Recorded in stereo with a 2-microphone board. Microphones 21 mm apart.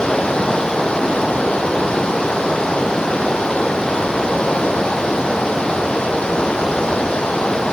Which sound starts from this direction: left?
Running water, at 0.0 s.